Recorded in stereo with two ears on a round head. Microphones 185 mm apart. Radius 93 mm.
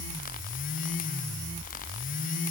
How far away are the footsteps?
No footsteps in this recording.